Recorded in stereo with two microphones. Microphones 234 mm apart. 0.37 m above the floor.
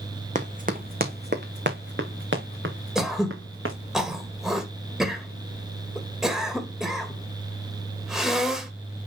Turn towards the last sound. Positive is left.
turn(degrees=0)  # may be behind; listen again after turning